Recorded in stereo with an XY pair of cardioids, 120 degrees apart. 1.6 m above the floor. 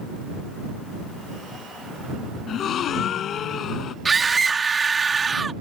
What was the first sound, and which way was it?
A gasp, 55° left.